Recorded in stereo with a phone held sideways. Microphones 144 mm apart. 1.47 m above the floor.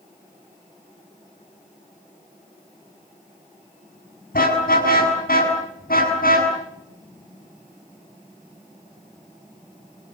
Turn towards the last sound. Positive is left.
turn(degrees=75)  # may be behind; listen again after turning